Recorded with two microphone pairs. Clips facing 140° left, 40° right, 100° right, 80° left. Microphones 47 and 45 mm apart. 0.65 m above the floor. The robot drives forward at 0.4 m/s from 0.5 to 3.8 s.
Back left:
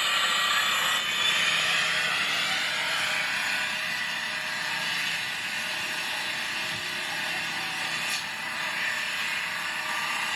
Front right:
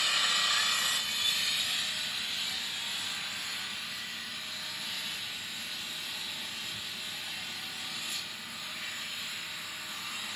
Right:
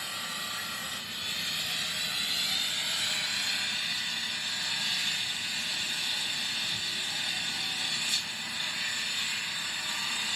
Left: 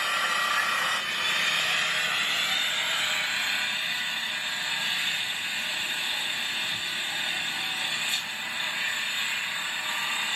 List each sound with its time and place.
0.0 s an engine running: 75° left, 0.7 m; by 10.4 s 150° left, 1.3 m